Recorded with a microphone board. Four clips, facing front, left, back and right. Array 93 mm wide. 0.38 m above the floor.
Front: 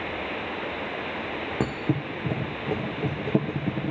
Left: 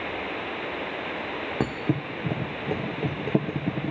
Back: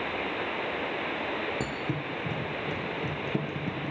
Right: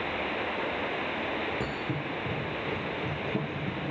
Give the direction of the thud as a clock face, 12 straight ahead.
10 o'clock.